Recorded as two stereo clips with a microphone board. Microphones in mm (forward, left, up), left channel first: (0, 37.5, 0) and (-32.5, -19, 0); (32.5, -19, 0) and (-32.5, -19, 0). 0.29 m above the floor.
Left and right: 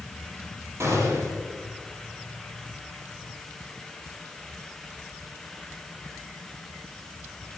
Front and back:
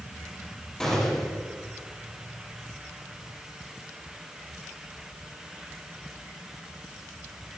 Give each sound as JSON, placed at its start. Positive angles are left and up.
{"t": 0.8, "sound": "a gunshot", "azimuth_deg": -80, "distance_m": 8.5}